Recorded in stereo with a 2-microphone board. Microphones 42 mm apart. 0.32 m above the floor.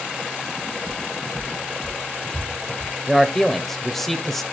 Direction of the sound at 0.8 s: 40° right (ahead or behind).